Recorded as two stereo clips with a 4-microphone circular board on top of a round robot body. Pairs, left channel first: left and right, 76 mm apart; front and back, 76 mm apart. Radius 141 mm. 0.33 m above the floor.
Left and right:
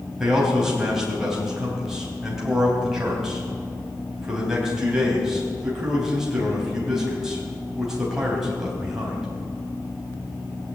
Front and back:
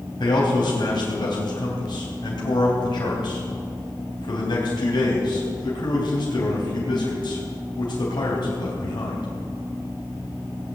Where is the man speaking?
5° right, 3.5 m.